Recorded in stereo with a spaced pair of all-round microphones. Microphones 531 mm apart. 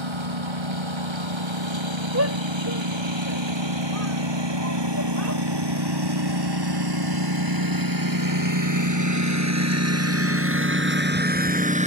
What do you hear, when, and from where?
0.0 s a lawn mower: 60° right (ahead or behind); by 11.9 s 15° right (ahead or behind)
2.1 s a shout: 25° right (ahead or behind)